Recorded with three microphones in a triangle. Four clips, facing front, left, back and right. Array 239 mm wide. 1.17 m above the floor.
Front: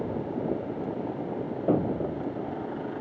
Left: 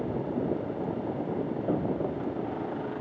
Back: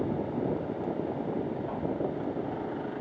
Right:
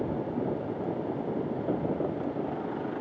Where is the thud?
Straight ahead.